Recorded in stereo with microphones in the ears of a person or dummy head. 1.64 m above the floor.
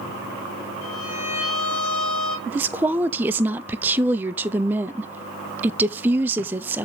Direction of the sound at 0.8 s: 85° left.